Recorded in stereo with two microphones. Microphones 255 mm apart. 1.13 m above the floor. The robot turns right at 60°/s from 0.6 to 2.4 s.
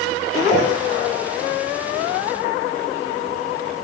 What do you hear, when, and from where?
0.5 s a whoosh: 30° left (ahead or behind), 1.0 m